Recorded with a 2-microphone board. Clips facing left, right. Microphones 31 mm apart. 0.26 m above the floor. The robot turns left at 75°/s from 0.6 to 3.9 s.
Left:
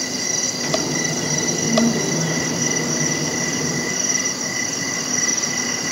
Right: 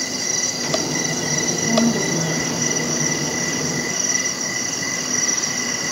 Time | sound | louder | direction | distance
1.5 | a woman speaking | even | 70° right | 1.9 m